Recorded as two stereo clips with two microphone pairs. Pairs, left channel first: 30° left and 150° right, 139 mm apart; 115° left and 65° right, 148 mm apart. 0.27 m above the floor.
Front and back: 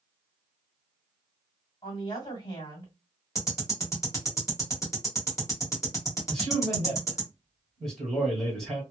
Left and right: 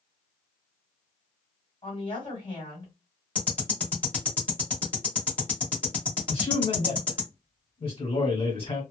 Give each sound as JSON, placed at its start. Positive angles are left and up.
{"t": 1.8, "sound": "a woman speaking", "azimuth_deg": 75, "distance_m": 1.8}
{"t": 3.4, "sound": "ticking", "azimuth_deg": 50, "distance_m": 1.5}
{"t": 6.3, "sound": "a man speaking", "azimuth_deg": 120, "distance_m": 1.7}